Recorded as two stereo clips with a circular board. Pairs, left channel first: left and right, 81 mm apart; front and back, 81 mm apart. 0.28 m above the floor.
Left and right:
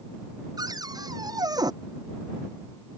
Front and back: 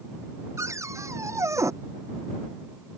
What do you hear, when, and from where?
0.6 s a cupboard door: 125° right